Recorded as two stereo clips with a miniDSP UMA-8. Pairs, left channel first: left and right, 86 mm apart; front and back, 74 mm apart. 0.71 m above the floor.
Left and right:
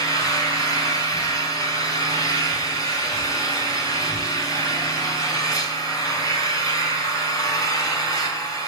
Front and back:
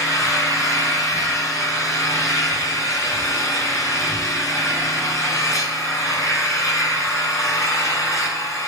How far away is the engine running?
About 5 m.